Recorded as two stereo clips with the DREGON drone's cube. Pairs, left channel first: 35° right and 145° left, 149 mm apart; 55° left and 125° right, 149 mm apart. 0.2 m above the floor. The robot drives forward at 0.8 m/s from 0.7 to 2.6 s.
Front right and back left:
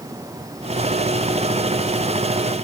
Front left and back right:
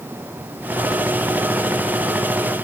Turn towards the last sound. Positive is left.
No sound to turn to.